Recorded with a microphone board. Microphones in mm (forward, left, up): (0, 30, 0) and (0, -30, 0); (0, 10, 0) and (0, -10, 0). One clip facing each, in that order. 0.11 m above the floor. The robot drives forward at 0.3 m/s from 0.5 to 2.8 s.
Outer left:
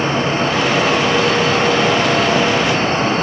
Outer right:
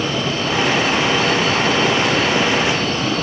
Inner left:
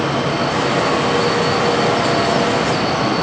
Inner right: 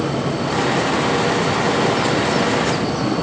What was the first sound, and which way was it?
Only background noise.